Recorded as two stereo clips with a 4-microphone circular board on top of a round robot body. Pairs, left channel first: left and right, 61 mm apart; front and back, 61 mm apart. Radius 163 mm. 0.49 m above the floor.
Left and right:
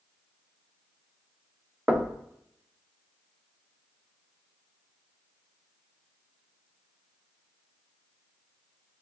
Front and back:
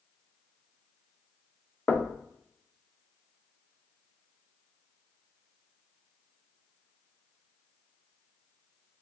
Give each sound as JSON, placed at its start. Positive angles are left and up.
{"t": 1.9, "sound": "knocking", "azimuth_deg": -35, "distance_m": 0.6}